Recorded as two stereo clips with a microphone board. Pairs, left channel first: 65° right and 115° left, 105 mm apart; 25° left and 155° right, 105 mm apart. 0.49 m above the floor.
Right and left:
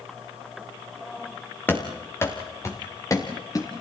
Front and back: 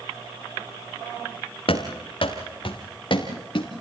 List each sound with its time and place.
1.7 s running footsteps: straight ahead, 3 m; by 3.7 s 15° right, 4 m